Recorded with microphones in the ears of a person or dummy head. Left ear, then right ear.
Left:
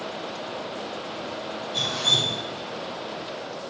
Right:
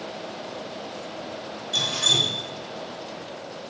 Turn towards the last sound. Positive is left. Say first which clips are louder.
# right 1 dB
turn(degrees=-70)  # may be behind; listen again after turning